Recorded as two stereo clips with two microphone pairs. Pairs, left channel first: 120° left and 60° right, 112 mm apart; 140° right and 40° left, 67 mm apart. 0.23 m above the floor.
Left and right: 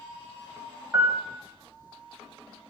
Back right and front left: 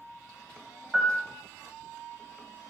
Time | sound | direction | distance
0.9 | a piano | 30° right | 1.0 m